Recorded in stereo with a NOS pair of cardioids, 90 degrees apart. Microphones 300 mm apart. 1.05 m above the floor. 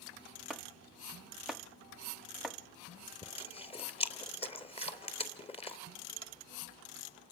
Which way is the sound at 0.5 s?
Straight ahead.